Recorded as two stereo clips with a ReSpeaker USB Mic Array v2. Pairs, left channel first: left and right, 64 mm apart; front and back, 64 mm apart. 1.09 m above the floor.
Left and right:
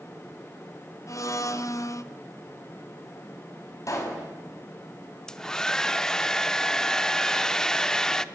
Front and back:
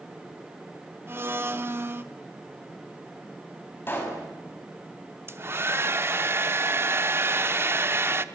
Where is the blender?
125° left, 1.1 m.